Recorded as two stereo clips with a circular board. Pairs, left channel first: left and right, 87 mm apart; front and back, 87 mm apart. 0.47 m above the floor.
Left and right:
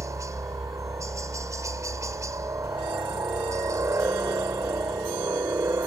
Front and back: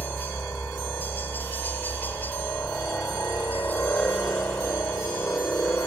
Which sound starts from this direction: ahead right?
A helicopter, at 0.0 s.